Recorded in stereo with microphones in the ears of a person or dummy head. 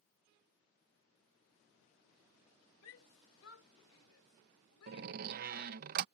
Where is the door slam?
50° right (ahead or behind).